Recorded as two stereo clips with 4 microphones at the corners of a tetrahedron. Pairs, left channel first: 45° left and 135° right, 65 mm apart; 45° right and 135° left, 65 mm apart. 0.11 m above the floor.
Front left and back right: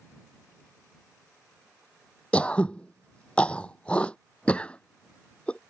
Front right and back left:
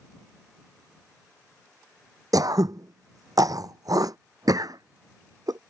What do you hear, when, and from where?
2.3 s throat clearing: 115° left